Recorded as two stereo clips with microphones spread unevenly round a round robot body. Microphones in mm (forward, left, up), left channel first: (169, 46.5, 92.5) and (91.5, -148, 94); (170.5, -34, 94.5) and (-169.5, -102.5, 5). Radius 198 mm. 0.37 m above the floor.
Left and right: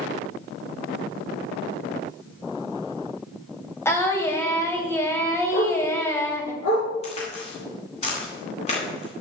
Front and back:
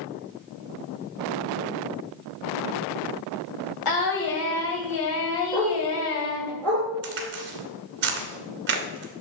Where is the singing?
10° right, 2.5 m.